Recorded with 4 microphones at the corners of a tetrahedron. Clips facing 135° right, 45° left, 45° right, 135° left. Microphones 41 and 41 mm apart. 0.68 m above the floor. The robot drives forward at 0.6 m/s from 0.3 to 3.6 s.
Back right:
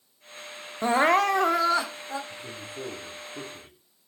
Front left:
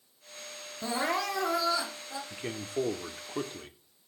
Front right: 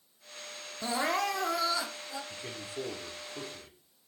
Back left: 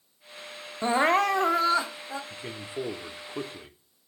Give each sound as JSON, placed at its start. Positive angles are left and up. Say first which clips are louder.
{"t": 0.8, "sound": "crying", "louder": "back right 10 dB, back left 8 dB", "azimuth_deg": -175, "distance_m": 0.5}
{"t": 2.3, "sound": "a man speaking", "louder": "front left 4 dB, back left 4 dB", "azimuth_deg": 60, "distance_m": 1.4}